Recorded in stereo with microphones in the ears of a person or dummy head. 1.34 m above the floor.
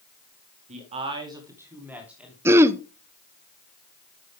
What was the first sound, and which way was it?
A man speaking, 40° right (ahead or behind).